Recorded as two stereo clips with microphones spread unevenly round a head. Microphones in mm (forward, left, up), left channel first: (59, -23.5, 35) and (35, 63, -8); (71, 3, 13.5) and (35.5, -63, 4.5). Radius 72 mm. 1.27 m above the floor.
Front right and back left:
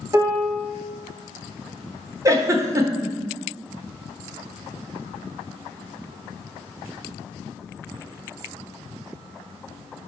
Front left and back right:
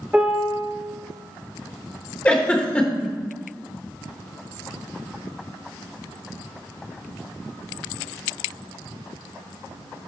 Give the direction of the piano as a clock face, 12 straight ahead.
7 o'clock.